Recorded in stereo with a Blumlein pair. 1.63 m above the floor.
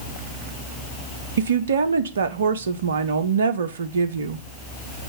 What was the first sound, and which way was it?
A woman speaking, 65° right.